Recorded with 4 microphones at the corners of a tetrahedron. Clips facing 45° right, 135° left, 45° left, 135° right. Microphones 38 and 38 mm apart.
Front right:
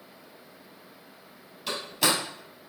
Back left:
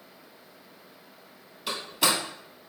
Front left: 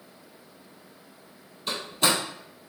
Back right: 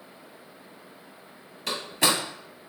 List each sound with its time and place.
1.7 s a door slam: 140° right, 2.5 m